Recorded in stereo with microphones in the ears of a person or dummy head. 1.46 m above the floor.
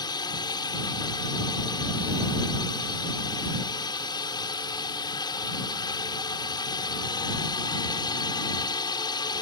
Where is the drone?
20° left (ahead or behind).